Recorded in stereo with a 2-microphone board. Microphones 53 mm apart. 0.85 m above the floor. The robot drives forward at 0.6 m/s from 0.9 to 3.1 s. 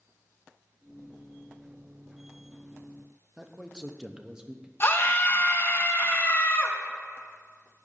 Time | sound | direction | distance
3.4 | a man speaking | 15° right (ahead or behind) | 0.7 m
4.8 | a scream | 45° left (ahead or behind) | 1.2 m